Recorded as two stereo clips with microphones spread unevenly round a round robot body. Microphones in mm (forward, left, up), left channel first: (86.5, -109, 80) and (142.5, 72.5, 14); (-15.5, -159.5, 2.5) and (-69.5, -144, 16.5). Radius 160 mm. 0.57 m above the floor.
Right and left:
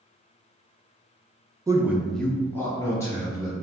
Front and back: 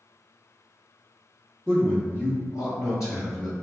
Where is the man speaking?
65° left, 0.7 m; by 3.5 s 30° right, 2.5 m.